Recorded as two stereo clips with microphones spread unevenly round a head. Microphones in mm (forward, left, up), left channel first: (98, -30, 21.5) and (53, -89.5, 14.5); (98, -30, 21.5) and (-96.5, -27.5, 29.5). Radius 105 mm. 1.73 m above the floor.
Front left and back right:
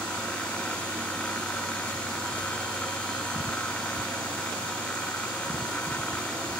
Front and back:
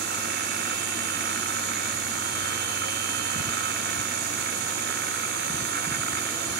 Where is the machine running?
135° left.